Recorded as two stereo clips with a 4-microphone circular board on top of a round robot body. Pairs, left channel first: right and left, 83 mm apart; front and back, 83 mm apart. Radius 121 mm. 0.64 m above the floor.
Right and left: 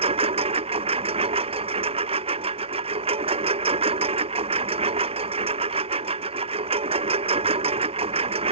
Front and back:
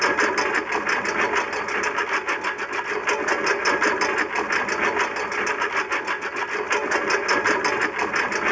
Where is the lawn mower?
90° left.